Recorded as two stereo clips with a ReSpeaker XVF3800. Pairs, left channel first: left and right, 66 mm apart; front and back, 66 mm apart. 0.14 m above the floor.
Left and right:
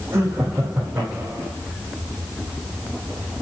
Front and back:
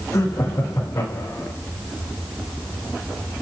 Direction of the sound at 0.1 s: 35° right.